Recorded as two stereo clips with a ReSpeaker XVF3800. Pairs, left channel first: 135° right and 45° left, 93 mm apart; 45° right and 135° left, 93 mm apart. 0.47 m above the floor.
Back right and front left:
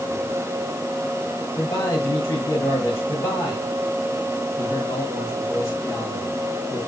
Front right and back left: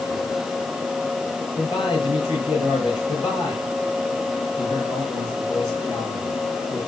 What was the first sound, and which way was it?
A man speaking, 80° right.